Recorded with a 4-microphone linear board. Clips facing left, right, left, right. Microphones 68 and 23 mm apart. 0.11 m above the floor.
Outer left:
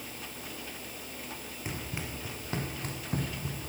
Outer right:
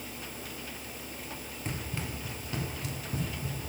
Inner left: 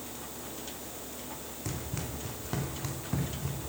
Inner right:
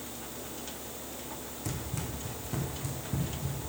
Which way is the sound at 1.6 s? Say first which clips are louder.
Outer right 1 dB, even; 10° left (ahead or behind).